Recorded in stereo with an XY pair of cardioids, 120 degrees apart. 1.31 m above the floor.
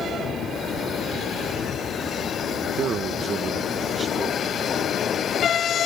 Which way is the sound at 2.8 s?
55° right.